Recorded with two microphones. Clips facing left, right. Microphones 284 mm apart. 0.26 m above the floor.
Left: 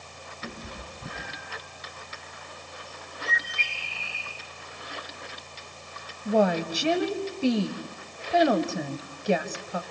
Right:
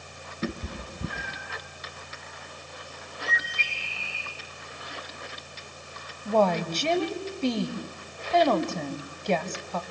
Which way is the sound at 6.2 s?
10° left (ahead or behind).